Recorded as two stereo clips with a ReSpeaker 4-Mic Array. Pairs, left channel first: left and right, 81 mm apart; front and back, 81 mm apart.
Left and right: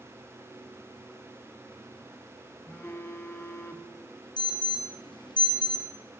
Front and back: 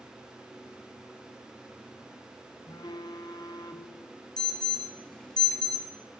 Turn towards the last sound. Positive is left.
turn(degrees=80)